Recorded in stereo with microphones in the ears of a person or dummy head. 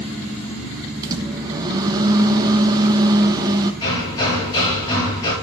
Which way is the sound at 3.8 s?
20° left (ahead or behind).